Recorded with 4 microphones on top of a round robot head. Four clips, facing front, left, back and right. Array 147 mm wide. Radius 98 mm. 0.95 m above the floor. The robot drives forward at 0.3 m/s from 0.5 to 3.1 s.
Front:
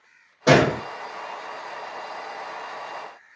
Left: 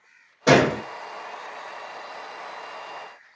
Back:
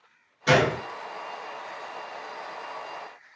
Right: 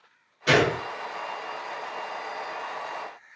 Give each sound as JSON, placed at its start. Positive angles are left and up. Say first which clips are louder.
{"t": 0.5, "sound": "a gunshot", "louder": "left 4 dB, front 4 dB", "azimuth_deg": 40, "distance_m": 0.7}